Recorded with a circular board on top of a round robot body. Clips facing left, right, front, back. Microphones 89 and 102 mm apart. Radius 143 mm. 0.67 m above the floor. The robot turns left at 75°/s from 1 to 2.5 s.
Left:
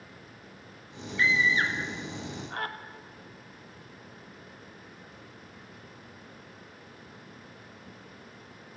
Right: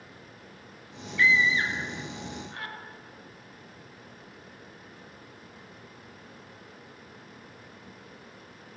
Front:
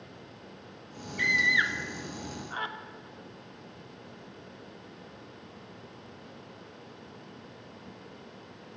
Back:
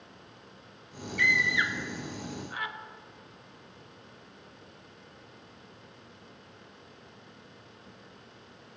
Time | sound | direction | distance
1.2 | a scream | 155° left | 2 m